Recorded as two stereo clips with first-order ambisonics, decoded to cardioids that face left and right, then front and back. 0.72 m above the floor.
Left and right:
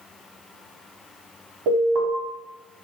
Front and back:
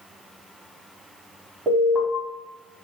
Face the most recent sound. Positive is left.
turn(degrees=-110)